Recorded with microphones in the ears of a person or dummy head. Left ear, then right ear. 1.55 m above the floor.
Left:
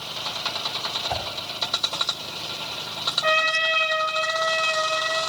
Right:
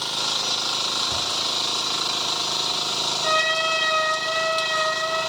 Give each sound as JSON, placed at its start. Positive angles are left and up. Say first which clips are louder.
{"t": 1.1, "sound": "a whoosh", "louder": "right 2 dB", "side_deg": 35, "distance_m": 2.0}
{"t": 3.2, "sound": "a trumpet", "louder": "left 1 dB", "side_deg": 50, "distance_m": 3.5}